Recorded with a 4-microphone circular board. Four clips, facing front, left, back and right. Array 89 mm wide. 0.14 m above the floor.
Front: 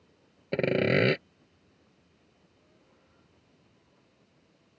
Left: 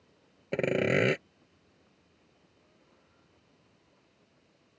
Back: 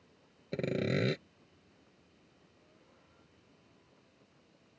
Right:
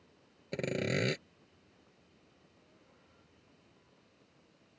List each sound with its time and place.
0.5 s sawing: 35° left